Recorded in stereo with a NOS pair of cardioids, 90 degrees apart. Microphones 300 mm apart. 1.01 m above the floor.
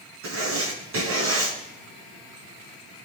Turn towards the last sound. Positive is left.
turn(degrees=-50)